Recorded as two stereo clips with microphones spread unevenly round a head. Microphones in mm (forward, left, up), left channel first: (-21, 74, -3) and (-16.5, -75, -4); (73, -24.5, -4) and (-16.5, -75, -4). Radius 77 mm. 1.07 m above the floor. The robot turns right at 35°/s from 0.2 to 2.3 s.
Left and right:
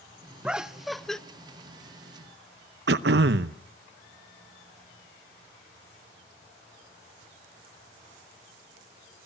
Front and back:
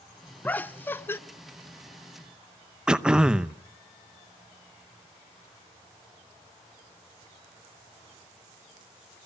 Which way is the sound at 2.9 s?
70° right.